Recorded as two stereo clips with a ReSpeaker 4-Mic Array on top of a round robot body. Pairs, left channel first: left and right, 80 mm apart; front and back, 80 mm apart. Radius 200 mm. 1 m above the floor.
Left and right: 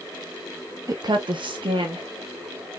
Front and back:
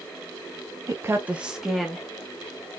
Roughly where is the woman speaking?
Behind right.